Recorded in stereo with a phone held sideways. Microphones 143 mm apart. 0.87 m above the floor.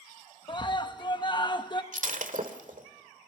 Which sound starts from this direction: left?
A scream, at 0.5 s.